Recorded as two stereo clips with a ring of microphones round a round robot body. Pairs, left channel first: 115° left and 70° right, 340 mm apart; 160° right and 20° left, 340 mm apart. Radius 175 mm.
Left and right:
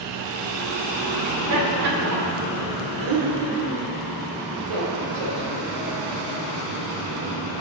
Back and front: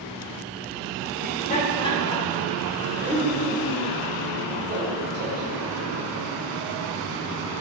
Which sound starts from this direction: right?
Laughter, at 1.2 s.